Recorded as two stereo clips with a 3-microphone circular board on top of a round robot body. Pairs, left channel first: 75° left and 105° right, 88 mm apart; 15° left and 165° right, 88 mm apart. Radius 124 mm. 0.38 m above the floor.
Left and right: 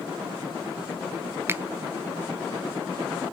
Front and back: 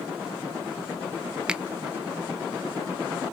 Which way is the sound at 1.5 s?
100° right.